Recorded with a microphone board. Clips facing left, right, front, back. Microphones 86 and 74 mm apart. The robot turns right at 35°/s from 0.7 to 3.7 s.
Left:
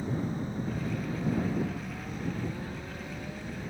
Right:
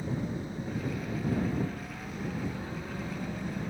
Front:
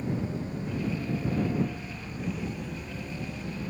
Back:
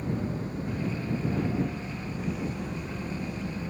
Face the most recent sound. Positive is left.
turn(degrees=-120)